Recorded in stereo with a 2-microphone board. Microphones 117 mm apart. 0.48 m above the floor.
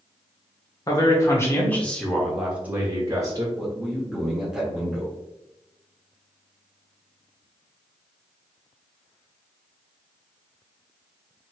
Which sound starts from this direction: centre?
A man speaking, at 3.6 s.